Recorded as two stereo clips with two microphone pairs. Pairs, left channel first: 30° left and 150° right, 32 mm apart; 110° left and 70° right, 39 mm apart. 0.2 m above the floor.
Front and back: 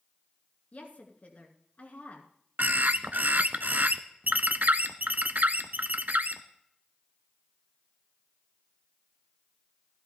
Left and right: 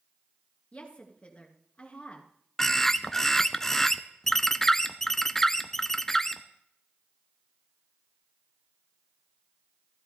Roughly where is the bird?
Behind.